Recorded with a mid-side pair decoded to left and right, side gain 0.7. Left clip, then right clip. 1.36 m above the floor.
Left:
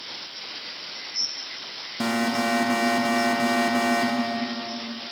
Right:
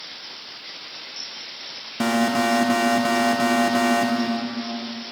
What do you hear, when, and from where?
2.0 s an alarm: 15° right, 0.7 m